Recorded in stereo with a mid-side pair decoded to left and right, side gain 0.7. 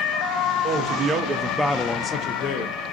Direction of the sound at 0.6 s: 50° right.